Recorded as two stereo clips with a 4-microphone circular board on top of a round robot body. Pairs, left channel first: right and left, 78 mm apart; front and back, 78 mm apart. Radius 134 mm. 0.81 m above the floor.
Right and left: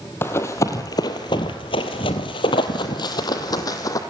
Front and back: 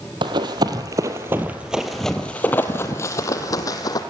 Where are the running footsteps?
150° right, 1.3 m; by 4.0 s 40° right, 1.8 m.